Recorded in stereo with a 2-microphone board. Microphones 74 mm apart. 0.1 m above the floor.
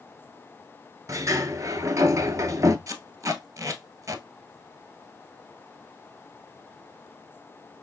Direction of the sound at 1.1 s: 45° right (ahead or behind).